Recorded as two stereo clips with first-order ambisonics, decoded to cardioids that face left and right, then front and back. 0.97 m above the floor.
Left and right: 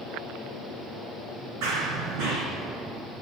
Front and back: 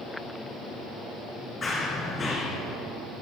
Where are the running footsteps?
80° right, 2.5 m.